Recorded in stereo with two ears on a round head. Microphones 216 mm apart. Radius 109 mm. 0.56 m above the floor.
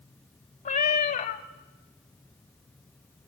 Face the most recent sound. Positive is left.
turn(degrees=35)  # may be behind; listen again after turning